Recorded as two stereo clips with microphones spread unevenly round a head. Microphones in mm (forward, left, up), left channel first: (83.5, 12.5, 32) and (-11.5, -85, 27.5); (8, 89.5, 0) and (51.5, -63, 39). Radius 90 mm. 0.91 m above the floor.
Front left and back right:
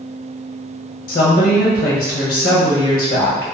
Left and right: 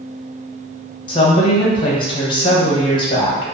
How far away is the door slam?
No door slam in this recording.